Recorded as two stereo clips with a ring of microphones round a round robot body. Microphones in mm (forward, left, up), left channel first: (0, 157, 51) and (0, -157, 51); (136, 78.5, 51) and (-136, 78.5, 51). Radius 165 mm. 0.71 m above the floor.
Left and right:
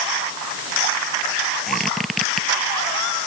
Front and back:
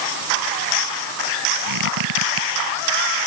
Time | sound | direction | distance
1.7 | a squeak | straight behind | ?